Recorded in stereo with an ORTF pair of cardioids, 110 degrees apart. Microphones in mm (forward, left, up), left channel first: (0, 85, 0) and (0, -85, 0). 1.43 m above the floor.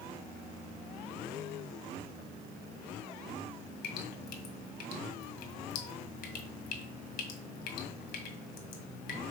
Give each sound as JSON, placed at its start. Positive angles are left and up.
{"t": 3.8, "sound": "dripping", "azimuth_deg": 65, "distance_m": 1.8}